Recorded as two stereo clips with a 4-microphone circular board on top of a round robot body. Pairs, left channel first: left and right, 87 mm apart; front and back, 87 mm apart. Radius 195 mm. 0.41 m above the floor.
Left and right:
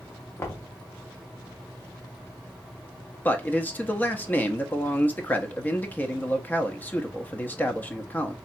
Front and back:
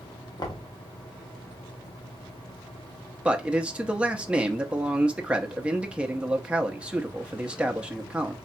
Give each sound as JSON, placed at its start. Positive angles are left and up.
{"t": 0.4, "sound": "knocking", "azimuth_deg": 35, "distance_m": 1.2}
{"t": 3.2, "sound": "a man speaking", "azimuth_deg": 125, "distance_m": 0.9}